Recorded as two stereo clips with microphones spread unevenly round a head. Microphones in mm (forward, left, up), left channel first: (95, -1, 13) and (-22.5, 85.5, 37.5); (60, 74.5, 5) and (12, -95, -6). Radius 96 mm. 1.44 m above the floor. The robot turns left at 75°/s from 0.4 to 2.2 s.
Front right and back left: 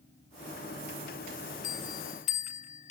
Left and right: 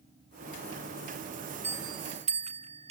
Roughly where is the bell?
Ahead right.